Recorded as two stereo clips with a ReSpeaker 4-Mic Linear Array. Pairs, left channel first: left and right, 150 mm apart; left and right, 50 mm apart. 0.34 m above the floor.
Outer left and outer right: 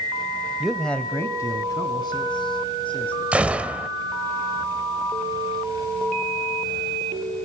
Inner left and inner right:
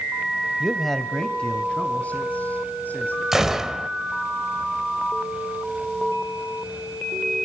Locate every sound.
0.6 s a man speaking: 5° right (ahead or behind), 1.2 m; by 3.2 s 35° left (ahead or behind), 4 m
3.3 s a gunshot: 10° right (ahead or behind), 1.4 m